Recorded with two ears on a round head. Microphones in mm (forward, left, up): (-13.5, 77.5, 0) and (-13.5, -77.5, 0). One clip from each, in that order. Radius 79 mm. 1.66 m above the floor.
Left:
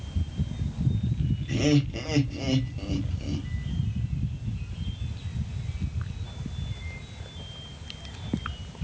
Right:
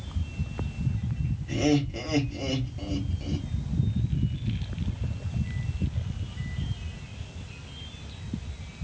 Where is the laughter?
15° left (ahead or behind), 1.1 m.